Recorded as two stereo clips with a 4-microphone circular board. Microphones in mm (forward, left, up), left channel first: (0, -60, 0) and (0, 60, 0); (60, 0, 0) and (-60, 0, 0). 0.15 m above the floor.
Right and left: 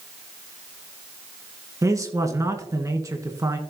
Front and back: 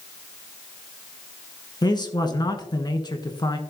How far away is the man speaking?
About 1.6 m.